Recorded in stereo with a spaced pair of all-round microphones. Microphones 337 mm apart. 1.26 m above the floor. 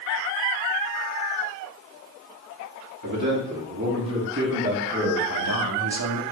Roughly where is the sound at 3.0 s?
Right.